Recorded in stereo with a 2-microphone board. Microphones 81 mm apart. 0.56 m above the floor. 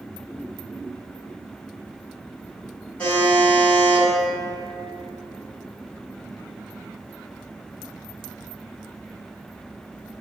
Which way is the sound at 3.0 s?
20° left (ahead or behind).